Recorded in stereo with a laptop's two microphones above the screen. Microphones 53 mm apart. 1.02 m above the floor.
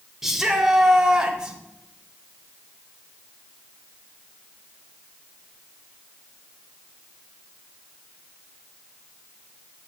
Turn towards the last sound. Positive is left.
turn(degrees=-15)  # may be behind; listen again after turning